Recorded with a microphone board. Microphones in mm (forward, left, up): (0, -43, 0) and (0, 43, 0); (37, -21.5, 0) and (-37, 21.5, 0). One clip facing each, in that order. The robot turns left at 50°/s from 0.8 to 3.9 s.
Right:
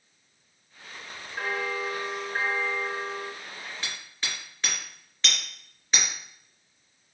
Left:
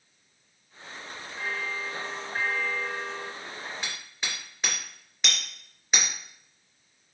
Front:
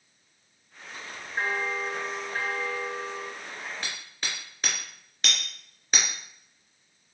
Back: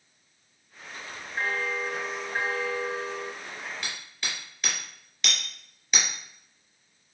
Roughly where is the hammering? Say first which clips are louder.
Even, even; ahead.